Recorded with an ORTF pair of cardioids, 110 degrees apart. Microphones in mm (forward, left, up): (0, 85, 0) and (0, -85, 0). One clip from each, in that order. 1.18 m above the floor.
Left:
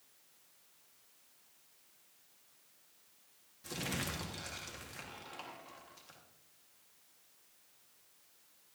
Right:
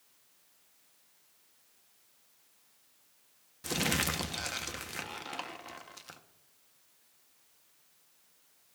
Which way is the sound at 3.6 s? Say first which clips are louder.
Right 9 dB; 55° right.